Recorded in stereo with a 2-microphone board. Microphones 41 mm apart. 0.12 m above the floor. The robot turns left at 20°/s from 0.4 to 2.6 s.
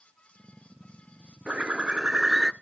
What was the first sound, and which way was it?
A bird, 30° right (ahead or behind).